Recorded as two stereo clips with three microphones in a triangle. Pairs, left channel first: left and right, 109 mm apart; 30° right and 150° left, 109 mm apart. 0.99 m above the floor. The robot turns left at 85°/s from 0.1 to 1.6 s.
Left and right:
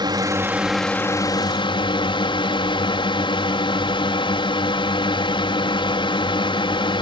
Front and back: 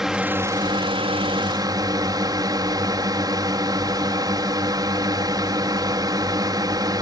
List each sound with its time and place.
0.0 s a drone: 125° right; by 7.0 s 105° left